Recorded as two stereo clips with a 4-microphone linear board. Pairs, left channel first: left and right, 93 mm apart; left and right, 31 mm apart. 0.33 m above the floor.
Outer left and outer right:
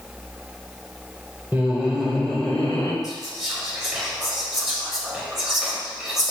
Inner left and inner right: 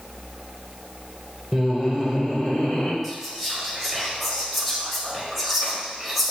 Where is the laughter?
20° right (ahead or behind), 0.9 m; by 2.9 s 25° left (ahead or behind), 1.1 m.